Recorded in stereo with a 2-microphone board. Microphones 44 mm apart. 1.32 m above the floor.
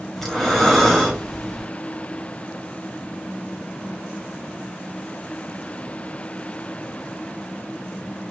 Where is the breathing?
5° left (ahead or behind), 0.9 m.